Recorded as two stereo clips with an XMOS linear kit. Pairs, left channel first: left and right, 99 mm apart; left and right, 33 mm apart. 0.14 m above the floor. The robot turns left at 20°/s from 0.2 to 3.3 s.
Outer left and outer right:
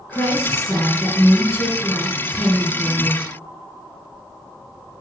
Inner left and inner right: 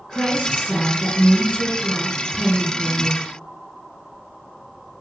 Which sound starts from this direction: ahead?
A woman speaking, at 0.1 s.